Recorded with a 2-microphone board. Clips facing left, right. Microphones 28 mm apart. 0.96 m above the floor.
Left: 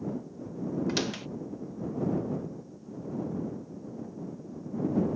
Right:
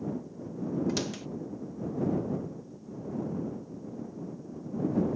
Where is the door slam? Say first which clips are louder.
Left 2 dB; 25° left (ahead or behind).